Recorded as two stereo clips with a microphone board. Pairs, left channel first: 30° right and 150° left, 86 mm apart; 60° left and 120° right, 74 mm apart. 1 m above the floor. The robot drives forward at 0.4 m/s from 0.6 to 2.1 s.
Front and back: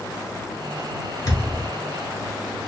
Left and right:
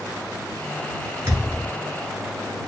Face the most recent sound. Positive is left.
turn(degrees=-90)